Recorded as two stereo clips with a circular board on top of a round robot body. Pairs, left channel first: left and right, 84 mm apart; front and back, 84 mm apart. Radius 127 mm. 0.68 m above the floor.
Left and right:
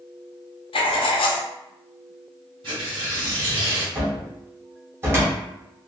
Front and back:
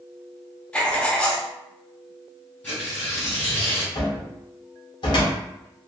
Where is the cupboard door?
30° right, 1.0 m.